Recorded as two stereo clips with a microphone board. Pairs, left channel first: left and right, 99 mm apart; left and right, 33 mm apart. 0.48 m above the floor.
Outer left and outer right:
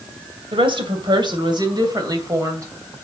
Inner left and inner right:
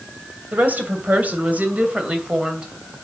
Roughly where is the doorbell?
I don't hear a doorbell.